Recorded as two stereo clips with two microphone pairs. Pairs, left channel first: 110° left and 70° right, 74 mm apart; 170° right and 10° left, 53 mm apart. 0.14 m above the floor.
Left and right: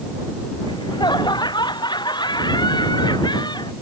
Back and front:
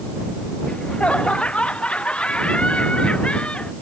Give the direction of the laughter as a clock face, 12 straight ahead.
8 o'clock.